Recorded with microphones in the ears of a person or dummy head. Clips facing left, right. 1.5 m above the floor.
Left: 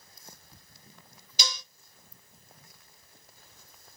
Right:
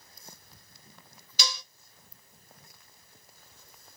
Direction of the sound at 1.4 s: 30° left (ahead or behind).